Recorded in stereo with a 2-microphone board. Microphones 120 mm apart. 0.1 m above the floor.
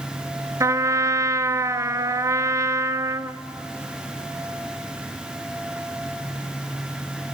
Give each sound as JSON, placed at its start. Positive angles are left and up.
{"t": 0.6, "sound": "a trumpet", "side_deg": -25, "distance_m": 0.6}